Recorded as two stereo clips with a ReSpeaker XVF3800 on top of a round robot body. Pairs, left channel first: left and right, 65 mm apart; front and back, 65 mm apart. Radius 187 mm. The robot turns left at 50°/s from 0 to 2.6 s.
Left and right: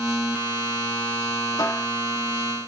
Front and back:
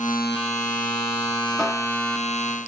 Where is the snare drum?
80° left, 3.5 m; by 1.9 s 65° left, 3.5 m.